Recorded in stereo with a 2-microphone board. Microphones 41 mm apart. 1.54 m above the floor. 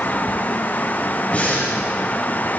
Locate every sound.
1.3 s breathing: 30° left (ahead or behind), 8.5 m